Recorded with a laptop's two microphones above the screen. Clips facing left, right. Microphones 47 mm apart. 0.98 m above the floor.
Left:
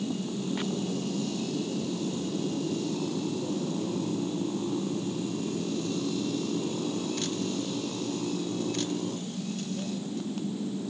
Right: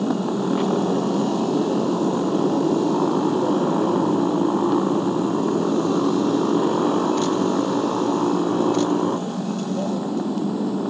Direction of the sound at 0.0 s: 85° right.